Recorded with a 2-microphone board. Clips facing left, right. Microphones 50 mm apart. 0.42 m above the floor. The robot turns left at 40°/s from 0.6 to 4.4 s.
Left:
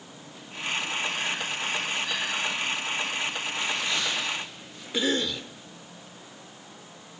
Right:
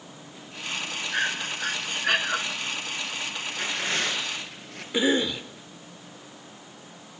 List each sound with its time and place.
1.1 s breathing: 80° right, 2.5 m; by 2.4 s 130° right, 2.5 m
3.5 s tearing paper: 30° right, 7 m; by 4.8 s 65° right, 7 m
4.9 s a cough: 15° right (ahead or behind), 0.9 m